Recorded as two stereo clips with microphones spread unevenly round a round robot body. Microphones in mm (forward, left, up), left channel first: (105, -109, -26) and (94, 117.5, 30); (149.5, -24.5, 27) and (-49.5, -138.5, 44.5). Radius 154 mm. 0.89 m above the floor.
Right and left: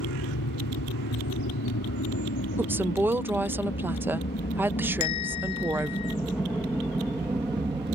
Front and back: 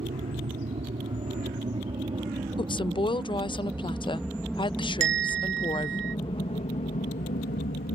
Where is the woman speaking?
5° right.